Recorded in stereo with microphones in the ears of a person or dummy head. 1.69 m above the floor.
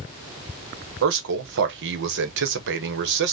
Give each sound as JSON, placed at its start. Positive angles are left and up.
{"t": 1.0, "sound": "a man speaking", "side_deg": -65, "distance_m": 1.1}